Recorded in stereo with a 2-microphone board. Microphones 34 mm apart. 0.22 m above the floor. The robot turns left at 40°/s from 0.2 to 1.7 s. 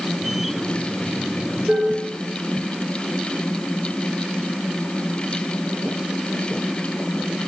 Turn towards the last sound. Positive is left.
turn(degrees=-45)  # may be behind; listen again after turning